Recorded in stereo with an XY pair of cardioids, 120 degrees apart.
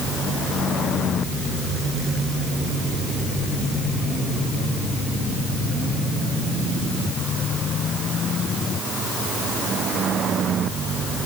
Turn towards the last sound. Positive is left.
No sound to turn to.